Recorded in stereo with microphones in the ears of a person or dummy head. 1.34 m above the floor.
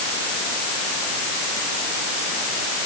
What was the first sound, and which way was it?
Only background noise.